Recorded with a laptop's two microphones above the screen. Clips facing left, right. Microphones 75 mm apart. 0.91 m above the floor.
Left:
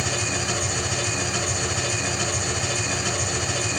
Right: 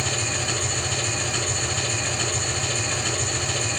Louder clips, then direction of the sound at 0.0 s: Left 1 dB; 15° left (ahead or behind).